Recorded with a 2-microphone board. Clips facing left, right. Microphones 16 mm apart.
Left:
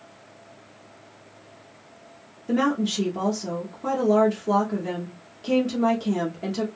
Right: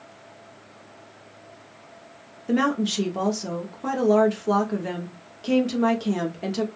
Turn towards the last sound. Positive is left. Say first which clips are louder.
# even
turn(degrees=-15)  # may be behind; listen again after turning